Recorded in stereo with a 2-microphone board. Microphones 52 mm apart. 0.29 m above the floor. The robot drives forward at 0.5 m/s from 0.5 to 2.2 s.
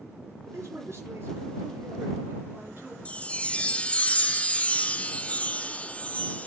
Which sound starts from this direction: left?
A chime, at 3.0 s.